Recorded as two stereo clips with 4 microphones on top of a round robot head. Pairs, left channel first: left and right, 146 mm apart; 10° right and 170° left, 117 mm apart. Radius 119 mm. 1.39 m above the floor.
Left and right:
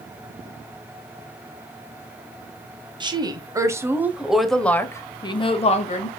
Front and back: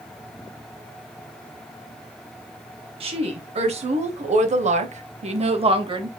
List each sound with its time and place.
3.0 s a woman speaking: 150° right, 1.6 m; by 6.1 s 125° left, 1.2 m